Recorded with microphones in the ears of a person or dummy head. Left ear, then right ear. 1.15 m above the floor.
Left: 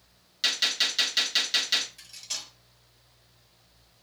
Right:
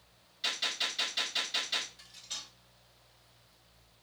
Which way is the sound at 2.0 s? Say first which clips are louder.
Left 6 dB; 70° left (ahead or behind).